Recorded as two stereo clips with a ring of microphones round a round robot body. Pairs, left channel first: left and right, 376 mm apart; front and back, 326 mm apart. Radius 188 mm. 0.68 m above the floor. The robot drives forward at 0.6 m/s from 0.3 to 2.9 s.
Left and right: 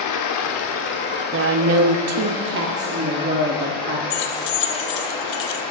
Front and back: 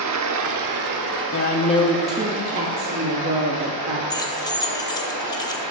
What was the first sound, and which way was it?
Running water, 135° left.